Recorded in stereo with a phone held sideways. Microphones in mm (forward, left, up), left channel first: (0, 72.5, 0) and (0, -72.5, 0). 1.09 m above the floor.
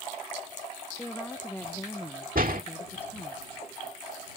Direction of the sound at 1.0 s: 15° left (ahead or behind).